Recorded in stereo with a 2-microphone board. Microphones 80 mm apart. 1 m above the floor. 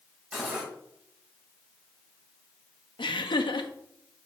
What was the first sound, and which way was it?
Cutlery clinking, 10° right (ahead or behind).